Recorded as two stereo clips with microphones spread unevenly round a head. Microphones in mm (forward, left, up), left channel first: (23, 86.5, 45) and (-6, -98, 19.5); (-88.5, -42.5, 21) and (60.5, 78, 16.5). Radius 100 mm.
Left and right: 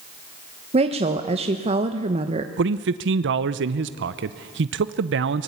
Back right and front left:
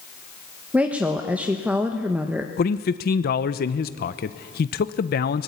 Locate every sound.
0.7 s a woman speaking: 45° right, 1.1 m
2.6 s a man speaking: 100° right, 0.7 m